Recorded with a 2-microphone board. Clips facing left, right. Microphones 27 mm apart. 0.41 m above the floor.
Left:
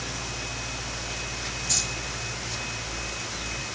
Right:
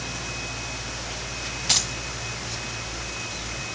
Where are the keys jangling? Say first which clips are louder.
Right 6 dB; 65° right (ahead or behind), 1.9 m.